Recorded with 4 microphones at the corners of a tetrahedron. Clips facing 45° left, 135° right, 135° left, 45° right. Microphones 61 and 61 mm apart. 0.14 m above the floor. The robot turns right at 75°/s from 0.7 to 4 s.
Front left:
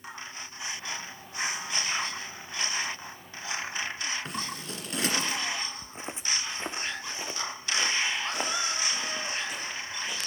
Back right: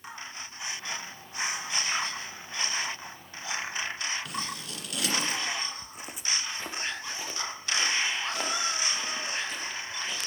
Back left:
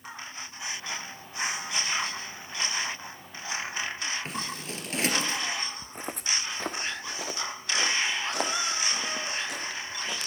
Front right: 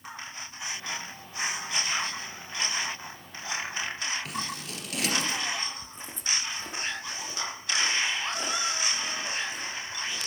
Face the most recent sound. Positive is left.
turn(degrees=125)